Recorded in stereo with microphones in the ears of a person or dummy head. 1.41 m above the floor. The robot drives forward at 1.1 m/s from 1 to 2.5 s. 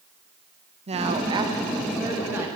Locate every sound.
0.9 s a woman speaking: 35° right (ahead or behind), 1.2 m; by 2.5 s 15° right (ahead or behind), 2.5 m